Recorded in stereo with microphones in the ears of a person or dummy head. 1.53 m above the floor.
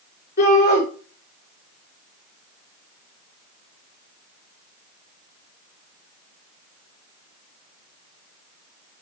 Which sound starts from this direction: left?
A shout, at 0.4 s.